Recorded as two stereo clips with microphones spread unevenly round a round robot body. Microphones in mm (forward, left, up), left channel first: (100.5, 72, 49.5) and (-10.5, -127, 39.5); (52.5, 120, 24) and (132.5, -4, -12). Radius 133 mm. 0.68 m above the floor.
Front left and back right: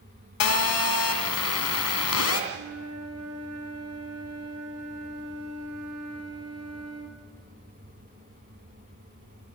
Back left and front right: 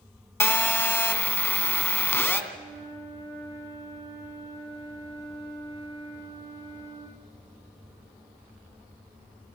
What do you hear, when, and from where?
0.4 s a phone buzzing: 50° left, 2.5 m
2.5 s a flute: 110° right, 8.5 m